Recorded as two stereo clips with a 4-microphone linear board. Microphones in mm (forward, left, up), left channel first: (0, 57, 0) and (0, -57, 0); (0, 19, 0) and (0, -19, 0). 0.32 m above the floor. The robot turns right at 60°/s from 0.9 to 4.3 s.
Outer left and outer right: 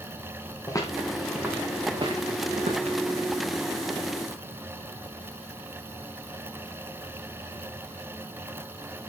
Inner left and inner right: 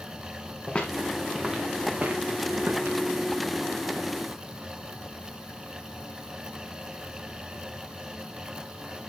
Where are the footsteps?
30° left (ahead or behind), 4 m; by 3.0 s 80° right, 5 m.